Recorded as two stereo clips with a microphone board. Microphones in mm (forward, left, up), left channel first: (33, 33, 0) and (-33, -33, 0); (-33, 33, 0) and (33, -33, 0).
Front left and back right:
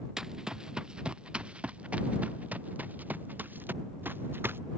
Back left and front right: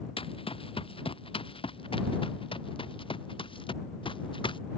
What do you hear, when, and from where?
0.2 s running footsteps: 140° left; by 4.6 s 160° left